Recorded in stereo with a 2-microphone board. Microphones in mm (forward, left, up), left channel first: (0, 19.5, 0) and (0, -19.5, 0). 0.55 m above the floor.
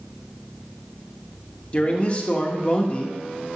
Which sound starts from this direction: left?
A man speaking, at 1.7 s.